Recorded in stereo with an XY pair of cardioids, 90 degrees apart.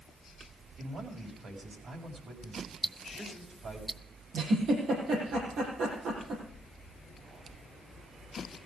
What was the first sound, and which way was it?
A man speaking, 55° right.